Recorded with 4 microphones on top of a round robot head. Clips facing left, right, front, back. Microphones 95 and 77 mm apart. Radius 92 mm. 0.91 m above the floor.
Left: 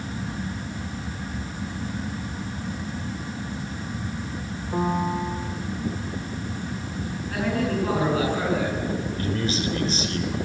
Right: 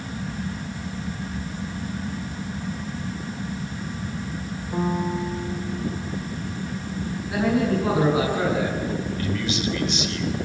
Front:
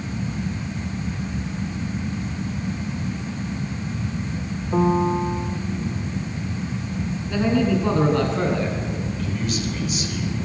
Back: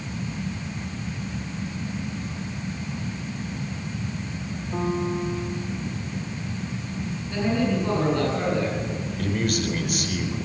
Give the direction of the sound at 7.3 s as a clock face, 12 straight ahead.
12 o'clock.